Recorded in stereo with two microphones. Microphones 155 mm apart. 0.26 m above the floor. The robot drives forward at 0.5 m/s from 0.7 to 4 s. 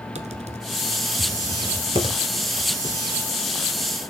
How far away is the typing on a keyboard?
About 1.1 m.